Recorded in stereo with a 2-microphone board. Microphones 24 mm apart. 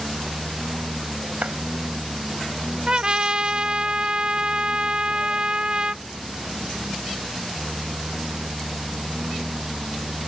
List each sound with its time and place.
0.0 s a lawn mower: 80° right
1.4 s a clap: 80° right
2.9 s a trumpet: 35° right (ahead or behind)